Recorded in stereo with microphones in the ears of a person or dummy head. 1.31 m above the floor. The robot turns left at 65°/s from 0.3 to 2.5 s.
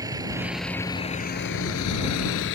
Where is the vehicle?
20° right (ahead or behind); by 2.5 s 60° left (ahead or behind).